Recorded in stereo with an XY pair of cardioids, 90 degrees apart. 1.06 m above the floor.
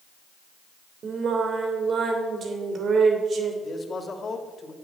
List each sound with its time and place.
1.0 s singing: 55° right, 3 m
3.6 s a man speaking: 45° left, 2.5 m